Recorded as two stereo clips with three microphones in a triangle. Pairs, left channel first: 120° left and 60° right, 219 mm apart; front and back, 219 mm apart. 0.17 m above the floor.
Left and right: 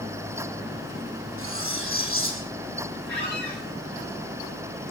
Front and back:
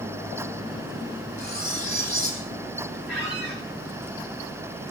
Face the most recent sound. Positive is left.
turn(degrees=-95)